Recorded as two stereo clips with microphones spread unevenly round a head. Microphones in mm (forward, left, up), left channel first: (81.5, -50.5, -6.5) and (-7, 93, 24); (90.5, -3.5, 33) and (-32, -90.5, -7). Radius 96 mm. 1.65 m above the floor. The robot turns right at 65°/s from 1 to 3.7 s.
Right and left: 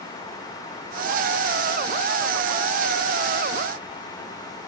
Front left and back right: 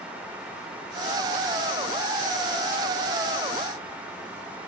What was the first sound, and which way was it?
Only background noise.